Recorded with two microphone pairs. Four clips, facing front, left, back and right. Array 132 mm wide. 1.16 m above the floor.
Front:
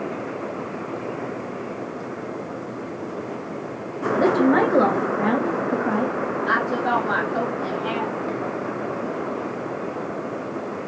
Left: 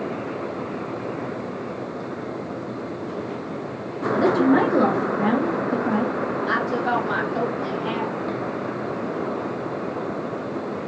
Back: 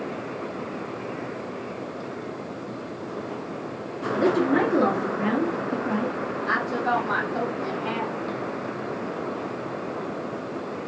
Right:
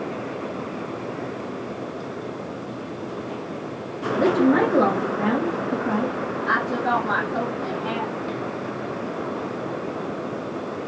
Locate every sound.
4.1 s a woman speaking: 10° right, 1.5 m
6.5 s a woman speaking: 25° right, 2.5 m